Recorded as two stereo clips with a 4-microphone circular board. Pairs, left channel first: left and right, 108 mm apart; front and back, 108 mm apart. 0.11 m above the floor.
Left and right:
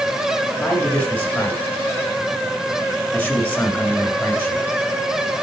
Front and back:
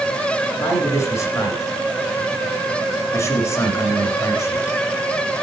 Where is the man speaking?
30° left, 2.0 m.